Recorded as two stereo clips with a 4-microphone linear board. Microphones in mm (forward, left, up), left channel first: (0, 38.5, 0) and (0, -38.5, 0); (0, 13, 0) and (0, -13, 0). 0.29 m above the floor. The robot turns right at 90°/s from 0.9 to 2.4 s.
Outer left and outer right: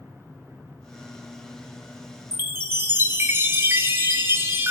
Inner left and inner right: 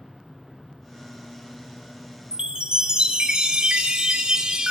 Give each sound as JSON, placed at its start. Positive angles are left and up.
{"t": 2.3, "sound": "a chime", "side_deg": -35, "distance_m": 0.8}